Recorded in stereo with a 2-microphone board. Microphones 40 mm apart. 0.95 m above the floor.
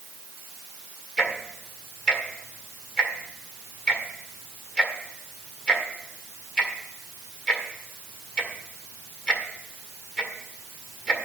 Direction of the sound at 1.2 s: 20° left (ahead or behind).